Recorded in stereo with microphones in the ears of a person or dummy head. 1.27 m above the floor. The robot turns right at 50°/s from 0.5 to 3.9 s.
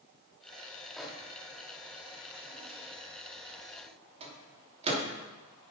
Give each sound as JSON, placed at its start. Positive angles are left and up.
{"t": 1.0, "sound": "a microwave", "side_deg": 0, "distance_m": 2.5}